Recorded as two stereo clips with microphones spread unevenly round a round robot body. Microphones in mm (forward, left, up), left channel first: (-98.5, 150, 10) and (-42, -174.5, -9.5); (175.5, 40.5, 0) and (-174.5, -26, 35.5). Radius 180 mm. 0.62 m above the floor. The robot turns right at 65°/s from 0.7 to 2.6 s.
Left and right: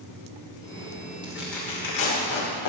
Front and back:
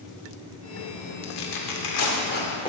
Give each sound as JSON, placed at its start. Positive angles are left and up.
{"t": 1.2, "sound": "tearing paper", "azimuth_deg": -5, "distance_m": 2.0}